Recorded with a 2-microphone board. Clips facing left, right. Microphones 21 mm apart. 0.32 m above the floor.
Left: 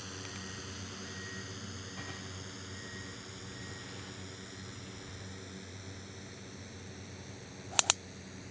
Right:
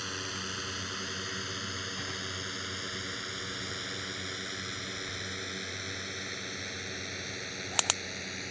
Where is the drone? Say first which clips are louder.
Right 8 dB; 40° right (ahead or behind); by 8.5 s 60° right (ahead or behind).